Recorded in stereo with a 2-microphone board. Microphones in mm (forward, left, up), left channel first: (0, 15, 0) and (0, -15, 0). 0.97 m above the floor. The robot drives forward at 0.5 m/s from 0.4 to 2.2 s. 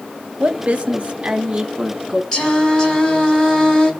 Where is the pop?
No pop in this recording.